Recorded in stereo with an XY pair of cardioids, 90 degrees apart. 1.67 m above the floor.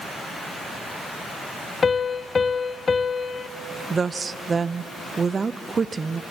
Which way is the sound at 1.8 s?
40° left.